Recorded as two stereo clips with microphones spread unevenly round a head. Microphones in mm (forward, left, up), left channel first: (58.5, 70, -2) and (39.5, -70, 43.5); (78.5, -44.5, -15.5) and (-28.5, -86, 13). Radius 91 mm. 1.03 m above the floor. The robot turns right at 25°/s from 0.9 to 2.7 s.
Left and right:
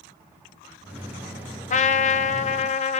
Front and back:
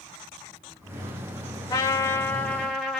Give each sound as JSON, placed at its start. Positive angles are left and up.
{"t": 1.7, "sound": "a trumpet", "azimuth_deg": 80, "distance_m": 0.6}